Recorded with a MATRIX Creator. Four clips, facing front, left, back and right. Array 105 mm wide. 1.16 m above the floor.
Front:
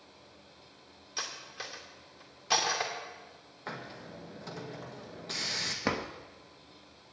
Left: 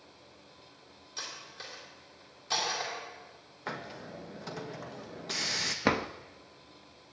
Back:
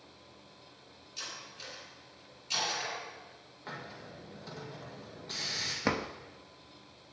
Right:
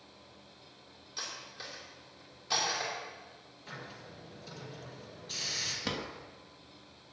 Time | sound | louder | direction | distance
1.2 | cutlery clinking | even, front 5 dB | 5° left | 2.5 m
3.7 | a hiss | left 7 dB, front 2 dB | 70° left | 1.5 m
5.8 | a drawer | left 10 dB, back 1 dB | 90° left | 0.6 m